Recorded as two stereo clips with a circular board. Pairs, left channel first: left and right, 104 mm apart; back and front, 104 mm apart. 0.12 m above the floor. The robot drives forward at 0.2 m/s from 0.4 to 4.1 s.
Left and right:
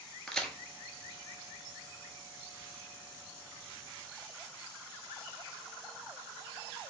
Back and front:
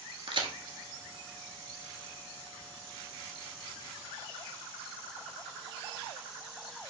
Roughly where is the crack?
Ahead.